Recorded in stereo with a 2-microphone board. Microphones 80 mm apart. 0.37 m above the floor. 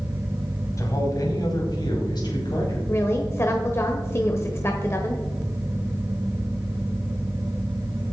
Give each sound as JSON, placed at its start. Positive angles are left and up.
{"t": 0.8, "sound": "a man speaking", "side_deg": 40, "distance_m": 2.5}
{"t": 2.9, "sound": "a woman speaking", "side_deg": 35, "distance_m": 1.1}